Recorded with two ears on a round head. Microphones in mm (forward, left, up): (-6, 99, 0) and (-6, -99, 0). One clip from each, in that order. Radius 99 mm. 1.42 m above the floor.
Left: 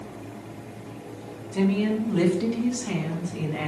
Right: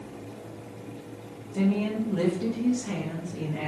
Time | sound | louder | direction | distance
1.5 | a woman speaking | left 3 dB | 85° left | 2.5 m